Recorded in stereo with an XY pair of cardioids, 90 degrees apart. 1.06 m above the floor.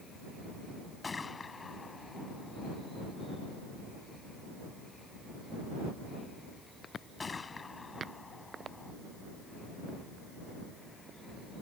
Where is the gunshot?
35° left.